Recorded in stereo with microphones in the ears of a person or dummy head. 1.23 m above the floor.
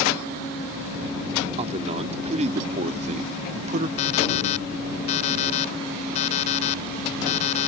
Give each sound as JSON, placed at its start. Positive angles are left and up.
{"t": 1.6, "sound": "a man speaking", "side_deg": -35}
{"t": 4.0, "sound": "an alarm clock", "side_deg": 40}